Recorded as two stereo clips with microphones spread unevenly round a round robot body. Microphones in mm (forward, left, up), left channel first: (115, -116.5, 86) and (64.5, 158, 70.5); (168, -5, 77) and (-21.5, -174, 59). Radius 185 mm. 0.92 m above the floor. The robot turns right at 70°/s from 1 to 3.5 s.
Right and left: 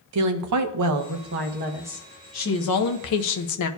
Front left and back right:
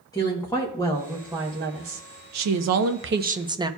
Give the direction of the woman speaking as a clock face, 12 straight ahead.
8 o'clock.